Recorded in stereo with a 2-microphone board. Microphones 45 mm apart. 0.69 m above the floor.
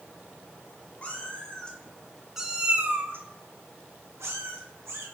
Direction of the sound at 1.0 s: 30° left (ahead or behind).